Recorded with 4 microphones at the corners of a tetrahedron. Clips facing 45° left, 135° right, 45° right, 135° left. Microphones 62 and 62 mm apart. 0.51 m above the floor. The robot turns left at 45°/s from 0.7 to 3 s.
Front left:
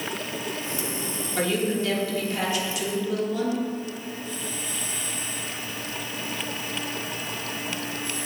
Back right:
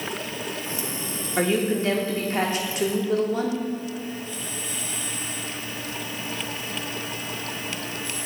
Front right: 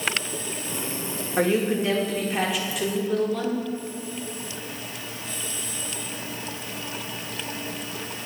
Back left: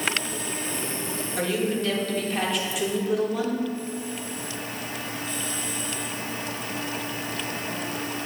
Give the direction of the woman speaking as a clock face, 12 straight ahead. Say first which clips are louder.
Back right 3 dB, front right 4 dB; 3 o'clock.